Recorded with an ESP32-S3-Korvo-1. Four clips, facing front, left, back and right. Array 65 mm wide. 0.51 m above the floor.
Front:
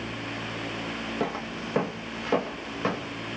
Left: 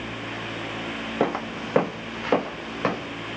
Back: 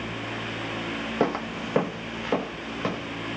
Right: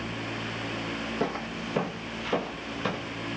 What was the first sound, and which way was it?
Footsteps, 125° left.